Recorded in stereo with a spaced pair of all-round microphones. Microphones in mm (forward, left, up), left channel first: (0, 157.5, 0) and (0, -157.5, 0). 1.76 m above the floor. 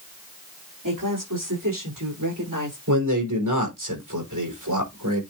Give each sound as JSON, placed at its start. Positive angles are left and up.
{"t": 0.8, "sound": "a woman speaking", "side_deg": -85, "distance_m": 4.5}
{"t": 2.9, "sound": "a man speaking", "side_deg": -85, "distance_m": 6.0}